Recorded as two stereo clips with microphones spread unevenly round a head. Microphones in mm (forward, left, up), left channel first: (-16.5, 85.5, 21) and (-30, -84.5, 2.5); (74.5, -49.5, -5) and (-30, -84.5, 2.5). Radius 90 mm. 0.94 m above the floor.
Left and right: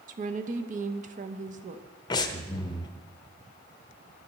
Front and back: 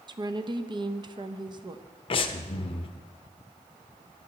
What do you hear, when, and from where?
0.1 s a woman speaking: 120° right, 0.8 m
2.1 s breathing: 20° left, 0.6 m